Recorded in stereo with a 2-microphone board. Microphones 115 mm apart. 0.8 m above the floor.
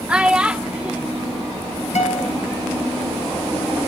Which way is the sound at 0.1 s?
10° right (ahead or behind).